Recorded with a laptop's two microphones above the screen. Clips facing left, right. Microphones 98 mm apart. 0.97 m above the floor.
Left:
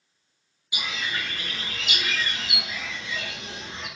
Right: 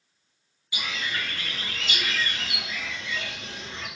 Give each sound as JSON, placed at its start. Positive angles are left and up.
{"t": 0.7, "sound": "a bird", "side_deg": 20, "distance_m": 0.7}